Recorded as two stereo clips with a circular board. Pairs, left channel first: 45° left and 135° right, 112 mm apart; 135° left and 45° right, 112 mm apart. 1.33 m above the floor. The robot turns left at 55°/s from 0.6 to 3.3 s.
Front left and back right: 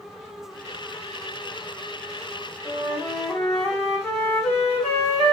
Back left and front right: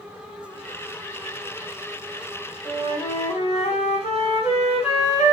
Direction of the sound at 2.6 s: 170° left.